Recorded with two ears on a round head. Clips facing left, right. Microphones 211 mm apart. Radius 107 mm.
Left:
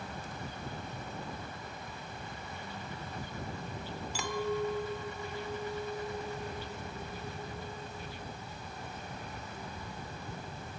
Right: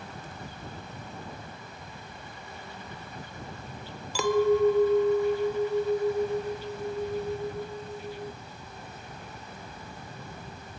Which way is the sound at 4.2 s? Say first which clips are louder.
Right 12 dB; 55° right (ahead or behind).